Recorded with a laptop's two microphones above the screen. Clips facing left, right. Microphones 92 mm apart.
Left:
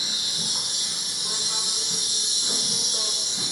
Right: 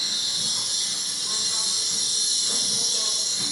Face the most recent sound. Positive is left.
turn(degrees=45)  # may be behind; listen again after turning